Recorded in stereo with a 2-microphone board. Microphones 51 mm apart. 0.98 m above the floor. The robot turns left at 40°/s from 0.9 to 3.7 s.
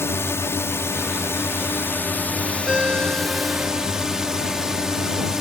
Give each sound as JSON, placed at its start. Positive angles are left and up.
{"t": 0.0, "sound": "a drone", "azimuth_deg": 95}
{"t": 2.7, "sound": "a ringtone", "azimuth_deg": -15}